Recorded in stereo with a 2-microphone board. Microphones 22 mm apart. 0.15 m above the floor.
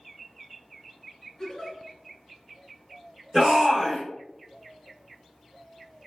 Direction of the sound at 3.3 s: 30° right (ahead or behind).